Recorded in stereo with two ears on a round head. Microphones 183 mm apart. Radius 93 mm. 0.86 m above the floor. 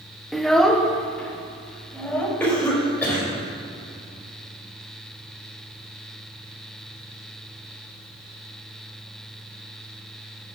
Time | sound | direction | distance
0.3 | a child speaking | centre (ahead or behind) | 0.5 m
2.4 | a cough | 5° left (ahead or behind) | 4 m